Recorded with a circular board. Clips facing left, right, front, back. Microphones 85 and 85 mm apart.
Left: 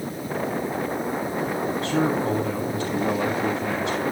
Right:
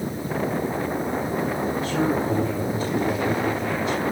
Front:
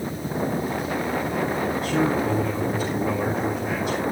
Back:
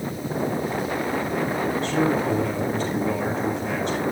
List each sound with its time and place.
1.8 s a man speaking: 85° left, 9 m